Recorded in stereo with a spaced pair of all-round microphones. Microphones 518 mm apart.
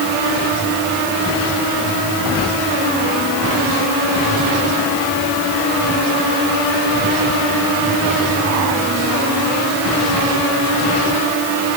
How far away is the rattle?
No rattle in this recording.